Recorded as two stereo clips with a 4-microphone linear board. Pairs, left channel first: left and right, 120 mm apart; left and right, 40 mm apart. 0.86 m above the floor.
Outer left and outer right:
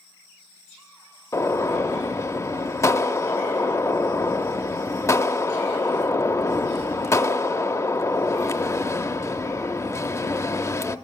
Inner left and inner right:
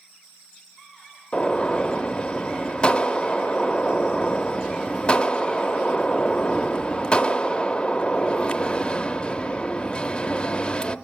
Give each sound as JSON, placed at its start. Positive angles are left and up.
{"t": 1.3, "sound": "a gunshot", "side_deg": 25, "distance_m": 0.5}